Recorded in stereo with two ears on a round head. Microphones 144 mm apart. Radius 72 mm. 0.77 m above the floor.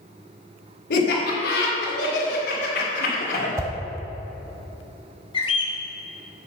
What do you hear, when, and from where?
0.9 s laughter: 75° left (ahead or behind), 3 m; by 3.5 s 60° left (ahead or behind), 2.5 m
3.6 s a whoosh: 15° right (ahead or behind), 0.9 m
5.3 s a bird: 30° left (ahead or behind), 1.2 m